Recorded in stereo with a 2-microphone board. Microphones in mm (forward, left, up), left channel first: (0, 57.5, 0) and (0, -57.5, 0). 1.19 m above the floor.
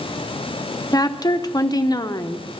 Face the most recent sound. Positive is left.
turn(degrees=35)  # may be behind; listen again after turning